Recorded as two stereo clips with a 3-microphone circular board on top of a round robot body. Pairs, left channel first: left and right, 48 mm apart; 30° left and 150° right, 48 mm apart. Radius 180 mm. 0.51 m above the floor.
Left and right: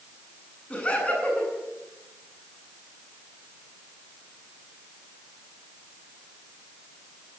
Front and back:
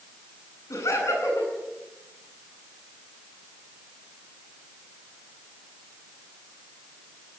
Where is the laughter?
25° left, 9.5 m.